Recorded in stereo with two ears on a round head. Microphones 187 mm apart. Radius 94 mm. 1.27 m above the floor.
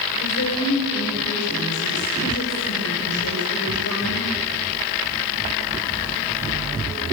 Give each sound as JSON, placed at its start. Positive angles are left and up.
{"t": 0.2, "sound": "a woman speaking", "side_deg": 80, "distance_m": 6.0}